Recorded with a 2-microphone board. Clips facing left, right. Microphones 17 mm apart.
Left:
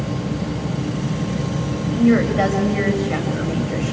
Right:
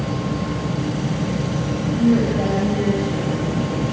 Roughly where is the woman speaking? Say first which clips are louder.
Left 2 dB; left.